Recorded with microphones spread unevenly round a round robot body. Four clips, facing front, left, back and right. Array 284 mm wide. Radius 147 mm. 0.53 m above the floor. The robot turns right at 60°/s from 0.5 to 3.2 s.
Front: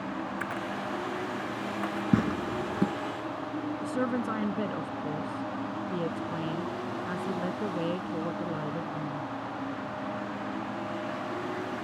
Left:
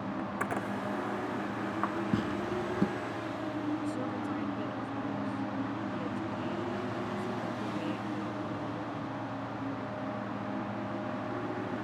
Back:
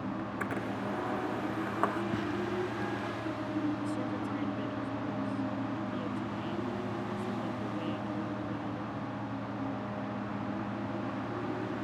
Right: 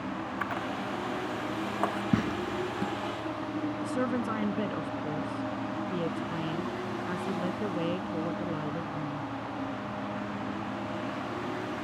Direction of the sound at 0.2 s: 130° left.